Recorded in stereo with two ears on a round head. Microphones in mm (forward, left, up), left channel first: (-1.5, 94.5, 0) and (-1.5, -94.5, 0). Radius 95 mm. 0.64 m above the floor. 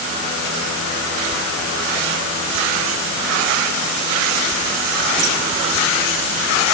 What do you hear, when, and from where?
Only background noise.